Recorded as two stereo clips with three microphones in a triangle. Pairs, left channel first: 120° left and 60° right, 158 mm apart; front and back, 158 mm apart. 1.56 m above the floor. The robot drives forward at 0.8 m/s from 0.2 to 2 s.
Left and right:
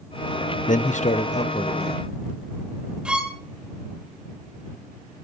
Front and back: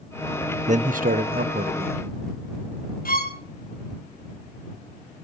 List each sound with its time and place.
0.7 s a man speaking: 145° left, 0.6 m; by 2.1 s 170° left, 1.6 m
3.0 s a violin: 25° left, 2.5 m